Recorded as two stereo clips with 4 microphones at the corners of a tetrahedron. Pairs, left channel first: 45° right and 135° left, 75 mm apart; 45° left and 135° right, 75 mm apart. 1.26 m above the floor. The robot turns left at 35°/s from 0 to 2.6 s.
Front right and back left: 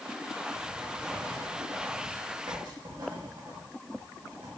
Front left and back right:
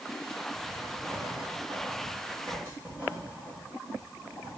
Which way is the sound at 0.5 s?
125° right.